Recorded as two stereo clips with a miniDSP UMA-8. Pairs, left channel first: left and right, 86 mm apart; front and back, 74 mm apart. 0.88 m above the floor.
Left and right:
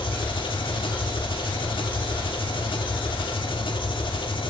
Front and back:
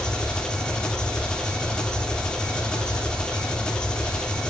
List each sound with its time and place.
0.0 s an engine running: 80° left, 1.8 m